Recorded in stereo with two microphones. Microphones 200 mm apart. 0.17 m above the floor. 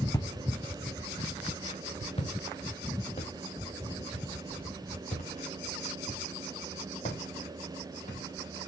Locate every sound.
0.1 s footsteps: 20° left (ahead or behind), 1.0 m; by 8.2 s 40° left (ahead or behind), 6 m